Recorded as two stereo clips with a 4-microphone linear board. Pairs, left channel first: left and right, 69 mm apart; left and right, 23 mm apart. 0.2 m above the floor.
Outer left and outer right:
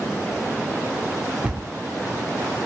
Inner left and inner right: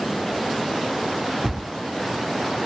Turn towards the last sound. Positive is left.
turn(degrees=-20)  # may be behind; listen again after turning